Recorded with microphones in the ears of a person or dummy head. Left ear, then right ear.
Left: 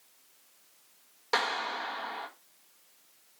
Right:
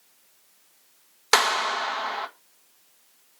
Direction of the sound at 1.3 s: 70° right (ahead or behind).